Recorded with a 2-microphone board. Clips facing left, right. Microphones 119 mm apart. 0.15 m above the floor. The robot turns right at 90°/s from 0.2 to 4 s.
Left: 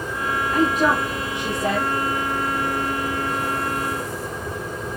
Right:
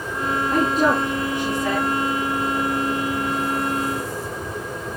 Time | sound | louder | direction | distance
0.5 | a woman speaking | even | 55° right (ahead or behind) | 5 m